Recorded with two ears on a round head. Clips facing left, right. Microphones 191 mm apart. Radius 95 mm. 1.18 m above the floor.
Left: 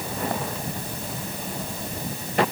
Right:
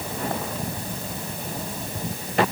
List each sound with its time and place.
Only background noise.